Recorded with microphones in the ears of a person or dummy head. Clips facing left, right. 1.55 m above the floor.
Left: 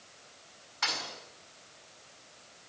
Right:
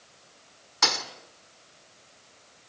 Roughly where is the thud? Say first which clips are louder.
Right 8 dB; right.